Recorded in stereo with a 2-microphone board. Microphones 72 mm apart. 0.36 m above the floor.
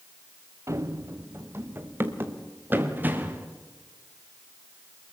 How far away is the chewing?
I don't hear chewing.